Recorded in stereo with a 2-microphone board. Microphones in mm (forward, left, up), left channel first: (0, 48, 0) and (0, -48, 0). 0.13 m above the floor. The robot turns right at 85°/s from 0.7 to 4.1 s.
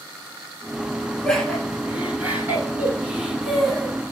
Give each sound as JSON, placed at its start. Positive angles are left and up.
{"t": 1.2, "sound": "laughter", "side_deg": 10, "distance_m": 1.2}